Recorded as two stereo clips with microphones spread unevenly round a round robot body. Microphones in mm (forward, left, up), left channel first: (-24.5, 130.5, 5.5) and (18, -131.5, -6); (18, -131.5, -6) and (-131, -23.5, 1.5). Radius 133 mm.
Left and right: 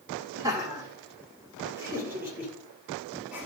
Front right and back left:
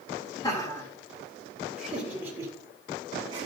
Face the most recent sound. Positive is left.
turn(degrees=-160)